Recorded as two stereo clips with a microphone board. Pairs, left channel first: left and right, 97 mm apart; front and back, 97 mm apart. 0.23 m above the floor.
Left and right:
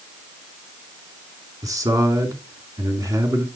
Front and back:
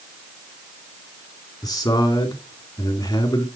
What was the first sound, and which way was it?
A man speaking, 45° right.